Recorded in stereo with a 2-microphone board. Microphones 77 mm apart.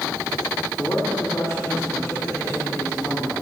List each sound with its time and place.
0.8 s a man speaking: 40° left (ahead or behind), 3.5 m